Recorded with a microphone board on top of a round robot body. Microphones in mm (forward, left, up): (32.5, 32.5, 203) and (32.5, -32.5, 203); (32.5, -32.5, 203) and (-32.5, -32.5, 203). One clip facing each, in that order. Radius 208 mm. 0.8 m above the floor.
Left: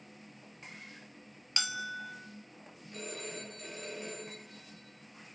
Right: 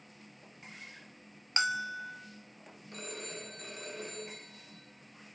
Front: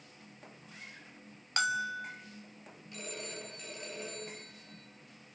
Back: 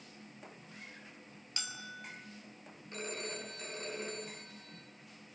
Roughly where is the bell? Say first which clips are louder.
Right 5 dB, front 14 dB; ahead right.